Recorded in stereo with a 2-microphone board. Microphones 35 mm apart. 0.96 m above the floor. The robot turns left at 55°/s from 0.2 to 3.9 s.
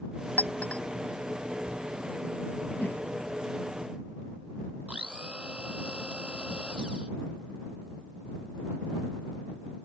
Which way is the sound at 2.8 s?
70° left (ahead or behind).